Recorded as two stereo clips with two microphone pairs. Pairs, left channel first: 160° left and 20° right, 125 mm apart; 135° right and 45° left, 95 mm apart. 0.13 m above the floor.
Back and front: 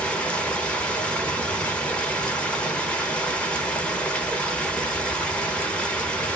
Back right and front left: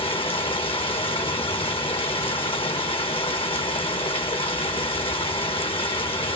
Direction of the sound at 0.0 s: 120° right.